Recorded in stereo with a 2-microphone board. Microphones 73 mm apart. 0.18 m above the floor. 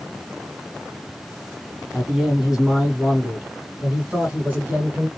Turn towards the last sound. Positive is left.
turn(degrees=-20)  # may be behind; listen again after turning